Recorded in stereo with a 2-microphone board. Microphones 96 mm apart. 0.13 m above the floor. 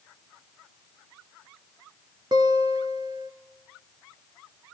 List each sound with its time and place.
2.3 s a guitar: 50° right (ahead or behind), 2.5 m